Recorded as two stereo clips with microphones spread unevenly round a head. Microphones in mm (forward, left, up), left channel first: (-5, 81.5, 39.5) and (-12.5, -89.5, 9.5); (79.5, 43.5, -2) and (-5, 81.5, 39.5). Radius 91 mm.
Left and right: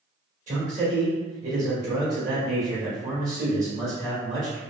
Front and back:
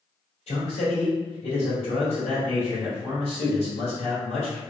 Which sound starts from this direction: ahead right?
A man speaking, at 0.5 s.